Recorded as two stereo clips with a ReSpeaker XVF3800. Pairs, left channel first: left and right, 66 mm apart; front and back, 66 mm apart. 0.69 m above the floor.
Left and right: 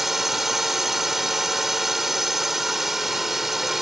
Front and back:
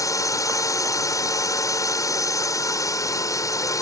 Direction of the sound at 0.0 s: 5° right.